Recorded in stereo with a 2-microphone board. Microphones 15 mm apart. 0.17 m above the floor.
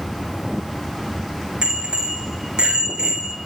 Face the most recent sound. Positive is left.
turn(degrees=-70)  # may be behind; listen again after turning